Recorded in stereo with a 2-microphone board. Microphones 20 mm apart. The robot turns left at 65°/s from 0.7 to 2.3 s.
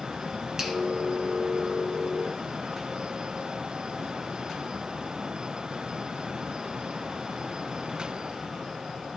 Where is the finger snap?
30° right (ahead or behind), 1.4 m; by 0.8 s 25° right (ahead or behind), 1.4 m.